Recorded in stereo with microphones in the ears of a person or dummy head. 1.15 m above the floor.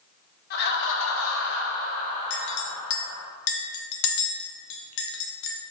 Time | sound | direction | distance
0.5 | laughter | 55° left (ahead or behind) | 1.5 m
2.3 | a clink | 65° left (ahead or behind) | 1.0 m